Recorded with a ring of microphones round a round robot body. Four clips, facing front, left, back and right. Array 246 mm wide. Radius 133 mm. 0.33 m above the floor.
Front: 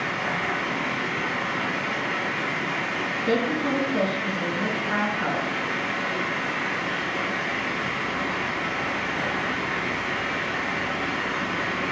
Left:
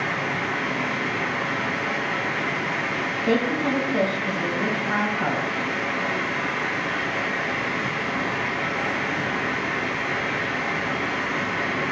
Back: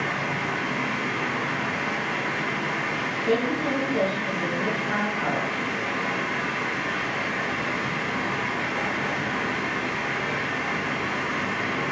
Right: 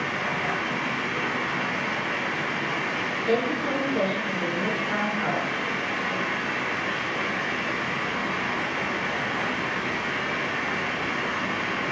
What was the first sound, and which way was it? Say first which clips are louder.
Running water: left 2 dB, even; 105° left.